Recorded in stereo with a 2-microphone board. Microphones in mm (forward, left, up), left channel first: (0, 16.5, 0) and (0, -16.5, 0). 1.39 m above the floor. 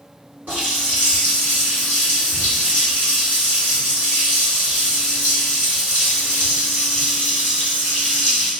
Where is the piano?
I don't hear a piano.